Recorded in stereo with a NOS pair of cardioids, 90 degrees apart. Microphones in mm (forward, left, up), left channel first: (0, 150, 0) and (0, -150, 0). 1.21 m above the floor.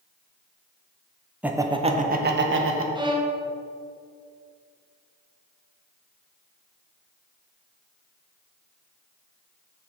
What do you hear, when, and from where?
1.4 s laughter: 5° right, 0.8 m; by 2.9 s 50° right, 1.1 m
3.0 s a violin: 15° right, 0.9 m